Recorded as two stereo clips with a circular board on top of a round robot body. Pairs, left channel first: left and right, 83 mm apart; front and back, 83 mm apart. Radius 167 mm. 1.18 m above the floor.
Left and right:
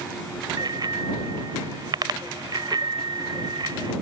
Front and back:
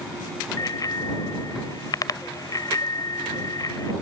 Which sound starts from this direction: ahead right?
A bicycle bell, at 0.6 s.